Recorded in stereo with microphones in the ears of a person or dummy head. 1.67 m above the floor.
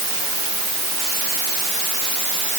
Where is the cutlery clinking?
No cutlery clinking in this recording.